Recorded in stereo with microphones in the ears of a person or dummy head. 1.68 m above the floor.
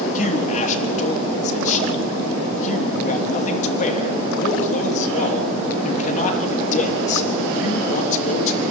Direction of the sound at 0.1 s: 40° left (ahead or behind).